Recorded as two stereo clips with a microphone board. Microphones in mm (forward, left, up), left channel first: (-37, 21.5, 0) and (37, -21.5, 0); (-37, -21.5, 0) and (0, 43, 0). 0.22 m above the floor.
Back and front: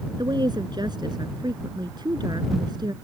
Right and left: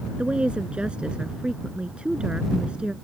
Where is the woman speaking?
15° right.